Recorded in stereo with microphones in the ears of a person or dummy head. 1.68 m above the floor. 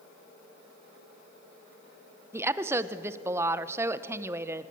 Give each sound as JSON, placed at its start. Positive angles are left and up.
{"t": 2.3, "sound": "a woman speaking", "side_deg": -15, "distance_m": 1.0}